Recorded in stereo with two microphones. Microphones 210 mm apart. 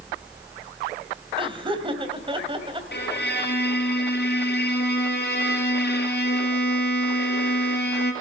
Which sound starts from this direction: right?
Laughter, at 1.4 s.